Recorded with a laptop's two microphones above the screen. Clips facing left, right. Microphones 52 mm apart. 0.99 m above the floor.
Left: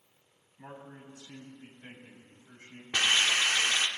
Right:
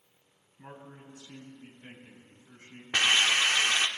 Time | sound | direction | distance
0.6 | a man speaking | 60° left (ahead or behind) | 7 m
2.9 | a hiss | 30° right (ahead or behind) | 1.0 m